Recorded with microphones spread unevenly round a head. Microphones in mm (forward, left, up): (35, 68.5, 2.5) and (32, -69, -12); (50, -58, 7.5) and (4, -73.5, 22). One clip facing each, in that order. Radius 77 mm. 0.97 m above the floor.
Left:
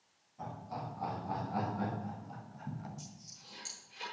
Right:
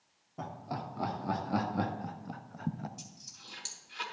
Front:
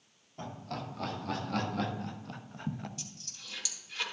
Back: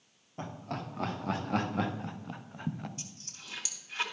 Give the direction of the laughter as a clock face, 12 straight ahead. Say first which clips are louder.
Right 3 dB, back 1 dB; 3 o'clock.